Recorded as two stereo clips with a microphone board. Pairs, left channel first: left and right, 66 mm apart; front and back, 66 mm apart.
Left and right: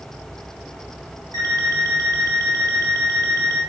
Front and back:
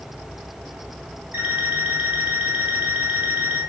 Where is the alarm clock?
115° right, 3 m.